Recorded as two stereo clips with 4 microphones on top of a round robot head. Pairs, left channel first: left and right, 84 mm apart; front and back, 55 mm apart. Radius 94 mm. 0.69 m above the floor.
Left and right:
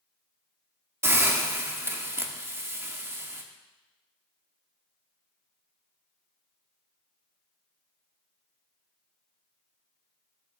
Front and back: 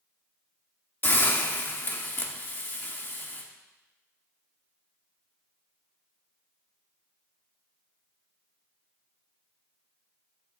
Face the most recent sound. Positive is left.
turn(degrees=-35)